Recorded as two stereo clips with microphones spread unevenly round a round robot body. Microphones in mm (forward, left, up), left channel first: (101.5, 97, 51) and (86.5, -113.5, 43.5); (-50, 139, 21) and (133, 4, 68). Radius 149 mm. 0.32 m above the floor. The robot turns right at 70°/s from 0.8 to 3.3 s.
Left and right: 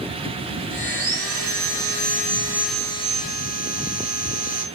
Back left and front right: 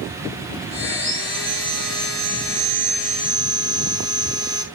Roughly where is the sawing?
Behind right.